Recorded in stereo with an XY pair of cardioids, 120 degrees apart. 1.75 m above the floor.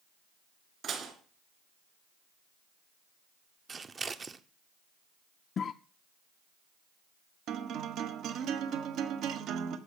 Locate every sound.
0.8 s dishes clattering: 50° right, 3 m
3.7 s scissors: 30° right, 0.9 m
5.6 s a cough: 40° left, 0.5 m
7.5 s a guitar: 65° right, 1.5 m